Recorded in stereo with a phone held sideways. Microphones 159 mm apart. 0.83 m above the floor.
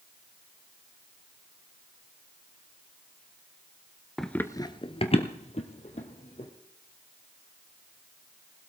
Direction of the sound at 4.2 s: Centre (ahead or behind).